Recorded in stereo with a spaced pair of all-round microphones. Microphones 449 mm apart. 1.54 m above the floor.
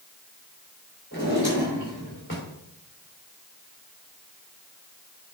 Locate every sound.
1.1 s a drawer: 25° left (ahead or behind), 3 m